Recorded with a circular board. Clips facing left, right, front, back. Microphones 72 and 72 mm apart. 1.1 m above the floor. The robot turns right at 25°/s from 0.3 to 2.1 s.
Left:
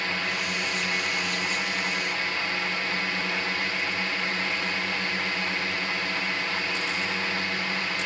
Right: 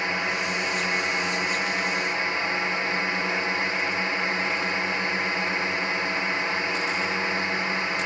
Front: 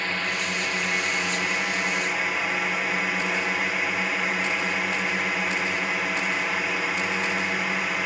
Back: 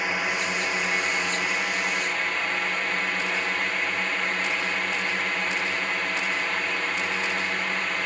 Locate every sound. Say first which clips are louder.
0.0 s a drone: right 3 dB, back 1 dB; 120° right; by 8.1 s 75° right